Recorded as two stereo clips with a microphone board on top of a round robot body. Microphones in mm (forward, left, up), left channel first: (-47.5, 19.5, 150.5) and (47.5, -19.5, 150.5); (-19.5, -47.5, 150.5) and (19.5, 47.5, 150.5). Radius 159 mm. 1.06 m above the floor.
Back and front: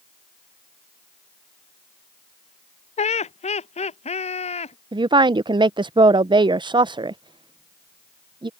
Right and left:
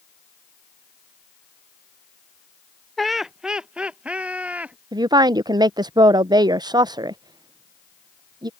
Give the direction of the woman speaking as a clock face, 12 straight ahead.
11 o'clock.